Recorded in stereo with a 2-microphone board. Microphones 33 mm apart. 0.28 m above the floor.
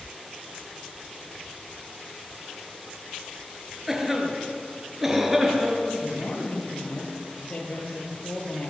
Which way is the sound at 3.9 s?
5° right (ahead or behind).